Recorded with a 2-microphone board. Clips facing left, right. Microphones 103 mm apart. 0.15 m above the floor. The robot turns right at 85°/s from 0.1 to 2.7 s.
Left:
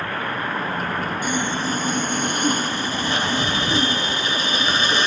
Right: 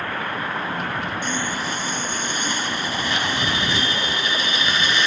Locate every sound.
1.2 s sawing: 10° left; by 5.1 s 135° left